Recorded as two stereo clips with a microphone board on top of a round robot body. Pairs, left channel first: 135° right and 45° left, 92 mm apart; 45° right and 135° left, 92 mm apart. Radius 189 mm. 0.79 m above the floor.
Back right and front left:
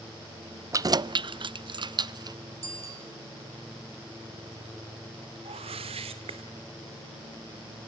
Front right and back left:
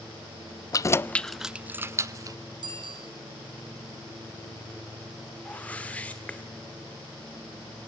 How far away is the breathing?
No breathing in this recording.